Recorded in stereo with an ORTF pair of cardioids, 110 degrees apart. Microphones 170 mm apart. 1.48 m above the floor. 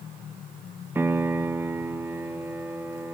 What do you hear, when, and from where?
0.9 s a piano: 15° right, 0.5 m